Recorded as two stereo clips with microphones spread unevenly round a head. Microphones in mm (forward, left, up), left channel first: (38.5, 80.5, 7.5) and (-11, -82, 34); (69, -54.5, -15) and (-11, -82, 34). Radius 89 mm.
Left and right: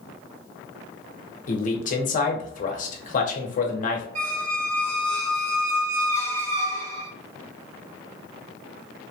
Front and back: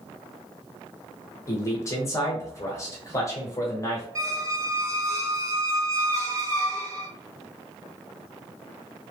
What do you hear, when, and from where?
1.5 s a man speaking: 45° left, 1.0 m
4.2 s a squeak: 110° right, 1.0 m